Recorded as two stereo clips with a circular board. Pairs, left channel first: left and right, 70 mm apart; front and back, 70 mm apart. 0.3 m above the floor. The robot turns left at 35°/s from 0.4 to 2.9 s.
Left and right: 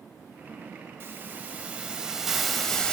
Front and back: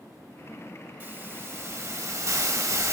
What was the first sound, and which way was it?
A hiss, 130° right.